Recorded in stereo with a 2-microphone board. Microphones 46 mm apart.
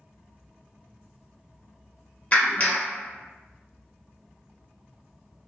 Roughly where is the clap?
Left.